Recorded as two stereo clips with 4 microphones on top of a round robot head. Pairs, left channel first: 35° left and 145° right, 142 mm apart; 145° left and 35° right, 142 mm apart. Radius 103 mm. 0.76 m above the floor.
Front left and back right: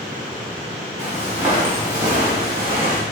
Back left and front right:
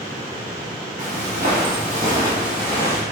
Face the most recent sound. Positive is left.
turn(degrees=155)